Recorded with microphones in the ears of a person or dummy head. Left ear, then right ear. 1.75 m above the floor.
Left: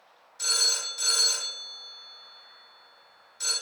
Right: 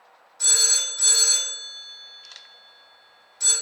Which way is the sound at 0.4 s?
40° left (ahead or behind).